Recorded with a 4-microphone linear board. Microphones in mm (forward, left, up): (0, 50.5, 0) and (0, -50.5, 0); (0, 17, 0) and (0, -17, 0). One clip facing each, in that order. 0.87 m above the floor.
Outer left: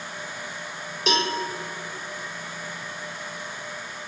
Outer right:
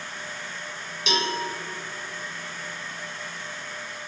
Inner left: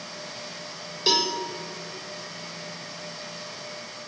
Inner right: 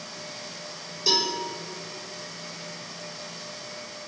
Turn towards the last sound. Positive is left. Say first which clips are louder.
# outer left 2 dB, inner left 2 dB
turn(degrees=45)  # may be behind; listen again after turning